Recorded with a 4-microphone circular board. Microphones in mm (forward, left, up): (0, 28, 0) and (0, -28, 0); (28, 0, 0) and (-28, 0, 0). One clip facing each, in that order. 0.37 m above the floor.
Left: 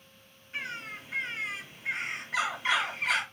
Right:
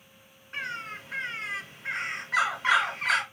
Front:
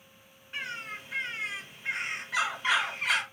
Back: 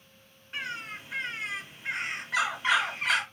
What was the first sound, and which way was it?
A bird, 100° right.